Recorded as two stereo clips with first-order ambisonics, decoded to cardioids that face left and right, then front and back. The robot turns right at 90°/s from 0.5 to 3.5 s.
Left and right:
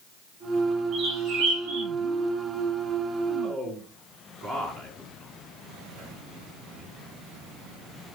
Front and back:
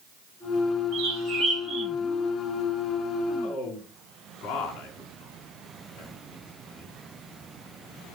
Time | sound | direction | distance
0.9 | a bird | 155° right | 4.5 m
3.4 | a man speaking | 5° right | 5.5 m